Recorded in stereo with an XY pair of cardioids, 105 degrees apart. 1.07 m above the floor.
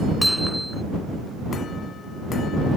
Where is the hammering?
Straight ahead.